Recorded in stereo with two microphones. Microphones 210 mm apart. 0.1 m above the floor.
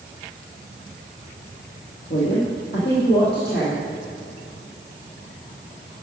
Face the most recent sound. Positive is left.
turn(degrees=55)  # may be behind; listen again after turning